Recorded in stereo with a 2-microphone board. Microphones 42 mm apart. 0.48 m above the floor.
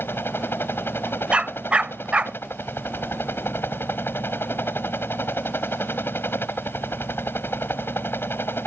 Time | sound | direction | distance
0.0 | a helicopter | 65° left (ahead or behind) | ?
1.3 | a dog barking | 30° right (ahead or behind) | ?